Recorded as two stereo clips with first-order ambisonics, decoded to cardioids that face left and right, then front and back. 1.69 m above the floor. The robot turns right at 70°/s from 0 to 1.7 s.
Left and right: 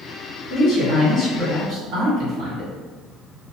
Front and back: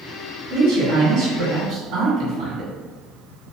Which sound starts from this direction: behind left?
A man speaking, at 0.5 s.